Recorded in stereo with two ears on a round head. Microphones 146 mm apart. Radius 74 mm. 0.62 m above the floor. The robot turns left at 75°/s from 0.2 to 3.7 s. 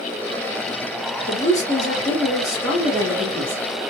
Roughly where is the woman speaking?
Behind left.